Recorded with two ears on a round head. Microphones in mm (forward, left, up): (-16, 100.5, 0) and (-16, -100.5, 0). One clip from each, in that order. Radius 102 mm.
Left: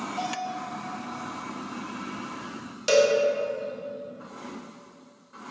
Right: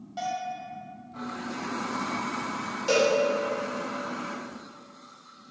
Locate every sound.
0.2 s a bell: 20° right (ahead or behind), 1.2 m
2.9 s a cowbell: 30° left (ahead or behind), 0.7 m